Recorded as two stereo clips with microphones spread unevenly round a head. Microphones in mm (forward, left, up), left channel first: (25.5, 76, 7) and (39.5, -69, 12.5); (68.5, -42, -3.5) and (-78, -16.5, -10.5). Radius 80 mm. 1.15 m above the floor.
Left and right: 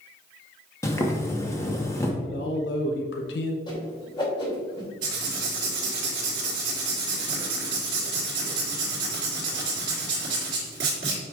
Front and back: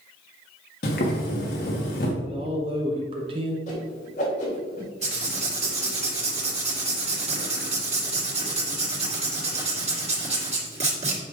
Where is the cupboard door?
No cupboard door in this recording.